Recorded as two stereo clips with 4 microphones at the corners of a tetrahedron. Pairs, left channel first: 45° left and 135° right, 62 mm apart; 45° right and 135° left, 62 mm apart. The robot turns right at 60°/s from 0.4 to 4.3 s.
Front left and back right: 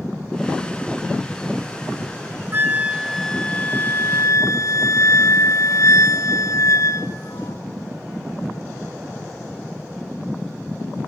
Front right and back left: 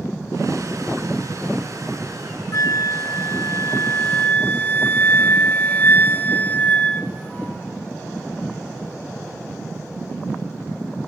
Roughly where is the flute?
Right.